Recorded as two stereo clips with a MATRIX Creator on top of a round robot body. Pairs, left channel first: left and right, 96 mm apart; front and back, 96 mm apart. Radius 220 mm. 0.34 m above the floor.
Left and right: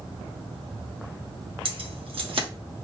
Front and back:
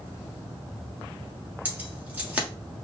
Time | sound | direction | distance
1.6 | keys jangling | 105° right | 1.3 m